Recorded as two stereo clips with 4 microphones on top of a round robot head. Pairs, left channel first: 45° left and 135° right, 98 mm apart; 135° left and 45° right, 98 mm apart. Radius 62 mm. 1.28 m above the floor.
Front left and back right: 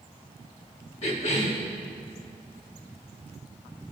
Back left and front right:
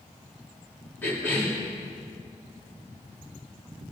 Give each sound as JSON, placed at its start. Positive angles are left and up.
{"t": 1.0, "sound": "a cough", "azimuth_deg": 65, "distance_m": 2.5}